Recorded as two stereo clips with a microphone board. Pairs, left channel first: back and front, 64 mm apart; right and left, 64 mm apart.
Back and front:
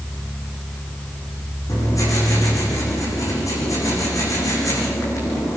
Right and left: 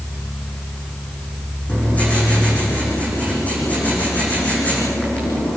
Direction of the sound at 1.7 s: 155° right.